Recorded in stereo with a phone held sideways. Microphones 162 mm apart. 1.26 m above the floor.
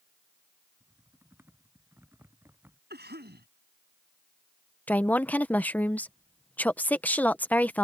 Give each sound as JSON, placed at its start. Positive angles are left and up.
{"t": 0.8, "sound": "typing on a keyboard", "side_deg": -15}
{"t": 2.9, "sound": "a cough", "side_deg": -85}
{"t": 4.9, "sound": "a woman speaking", "side_deg": 10}